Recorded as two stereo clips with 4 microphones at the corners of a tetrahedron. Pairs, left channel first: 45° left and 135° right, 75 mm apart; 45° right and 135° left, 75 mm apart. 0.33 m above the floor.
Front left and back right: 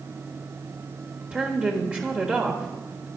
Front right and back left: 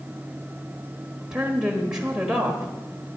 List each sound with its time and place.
1.3 s a woman speaking: 170° right, 1.3 m